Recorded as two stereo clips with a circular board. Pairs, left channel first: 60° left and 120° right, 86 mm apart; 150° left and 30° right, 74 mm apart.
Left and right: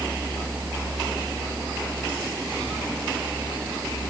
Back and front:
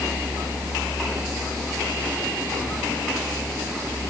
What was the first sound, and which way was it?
Only background noise.